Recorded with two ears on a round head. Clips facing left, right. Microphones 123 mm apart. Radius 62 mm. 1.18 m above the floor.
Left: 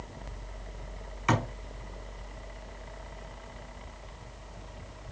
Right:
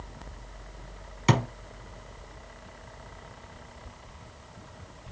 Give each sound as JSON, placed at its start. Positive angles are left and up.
{"t": 1.3, "sound": "a thud", "side_deg": -40, "distance_m": 1.3}